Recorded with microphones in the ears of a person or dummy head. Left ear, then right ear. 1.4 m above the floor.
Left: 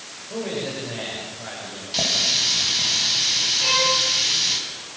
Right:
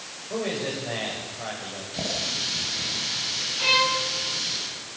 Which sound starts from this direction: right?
A man speaking, at 0.3 s.